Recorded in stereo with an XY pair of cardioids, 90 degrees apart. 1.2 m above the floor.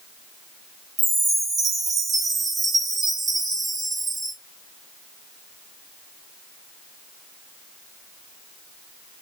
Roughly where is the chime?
Ahead right.